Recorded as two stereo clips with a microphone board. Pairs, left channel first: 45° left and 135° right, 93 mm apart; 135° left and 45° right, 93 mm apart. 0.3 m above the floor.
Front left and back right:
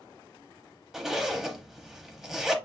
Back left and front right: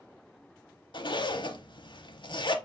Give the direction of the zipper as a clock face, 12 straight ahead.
7 o'clock.